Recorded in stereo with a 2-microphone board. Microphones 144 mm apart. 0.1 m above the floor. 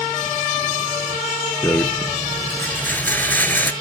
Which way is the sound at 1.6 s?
15° left (ahead or behind).